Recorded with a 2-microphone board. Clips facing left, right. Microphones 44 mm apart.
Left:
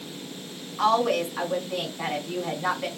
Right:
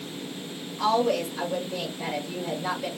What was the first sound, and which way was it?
A woman speaking, 65° left (ahead or behind).